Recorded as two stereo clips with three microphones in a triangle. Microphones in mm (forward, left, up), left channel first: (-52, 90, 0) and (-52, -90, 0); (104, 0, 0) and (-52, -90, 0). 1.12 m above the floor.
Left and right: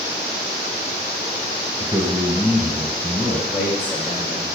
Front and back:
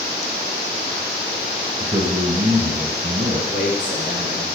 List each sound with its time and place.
1.8 s a man speaking: 170° right, 1.4 m
3.5 s a man speaking: 10° right, 3.5 m